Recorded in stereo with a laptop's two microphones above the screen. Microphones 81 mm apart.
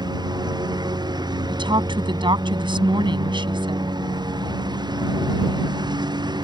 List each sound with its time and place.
0.0 s a lawn mower: 60° right (ahead or behind); by 6.5 s 65° right (ahead or behind)
1.5 s a woman speaking: 80° right